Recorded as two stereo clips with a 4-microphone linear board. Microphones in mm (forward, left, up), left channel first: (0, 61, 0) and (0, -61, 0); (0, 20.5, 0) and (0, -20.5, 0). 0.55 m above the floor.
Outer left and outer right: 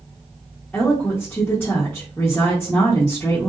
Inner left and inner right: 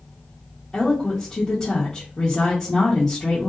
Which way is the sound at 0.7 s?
15° left (ahead or behind).